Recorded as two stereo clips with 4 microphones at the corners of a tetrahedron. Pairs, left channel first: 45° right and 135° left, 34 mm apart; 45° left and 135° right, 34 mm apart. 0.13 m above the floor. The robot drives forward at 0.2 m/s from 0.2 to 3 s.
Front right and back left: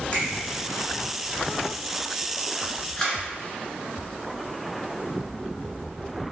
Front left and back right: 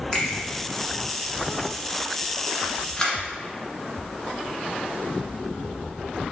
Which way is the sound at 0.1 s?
20° right.